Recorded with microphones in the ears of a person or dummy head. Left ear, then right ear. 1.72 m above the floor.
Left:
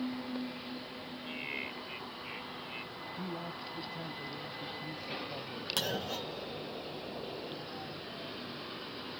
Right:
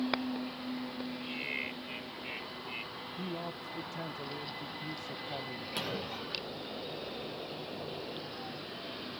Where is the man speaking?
15° right (ahead or behind).